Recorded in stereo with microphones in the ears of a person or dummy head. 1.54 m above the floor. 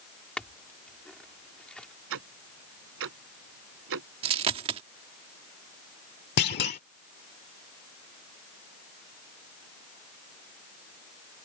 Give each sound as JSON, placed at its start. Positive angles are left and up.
{"t": 0.4, "sound": "a clink", "side_deg": 5}
{"t": 2.1, "sound": "ticking", "side_deg": -70}
{"t": 4.2, "sound": "a dropped coin", "side_deg": -30}
{"t": 6.4, "sound": "a clunk", "side_deg": 50}